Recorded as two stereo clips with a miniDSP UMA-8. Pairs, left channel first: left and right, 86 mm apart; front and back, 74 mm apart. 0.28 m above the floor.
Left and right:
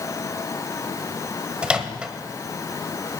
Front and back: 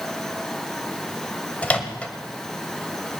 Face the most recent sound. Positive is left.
turn(degrees=-30)